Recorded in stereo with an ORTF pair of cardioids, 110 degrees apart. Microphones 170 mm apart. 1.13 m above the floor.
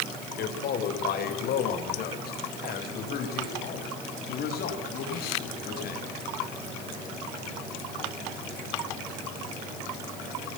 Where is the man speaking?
65° left, 3.5 m.